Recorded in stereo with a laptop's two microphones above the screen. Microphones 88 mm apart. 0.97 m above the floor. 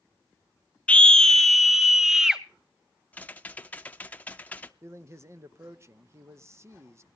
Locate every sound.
0.9 s a scream: 15° left (ahead or behind), 0.5 m; by 2.4 s 5° right (ahead or behind), 1.2 m
3.1 s typing on a keyboard: 20° left (ahead or behind), 0.6 m
4.8 s a man speaking: 30° right (ahead or behind), 0.5 m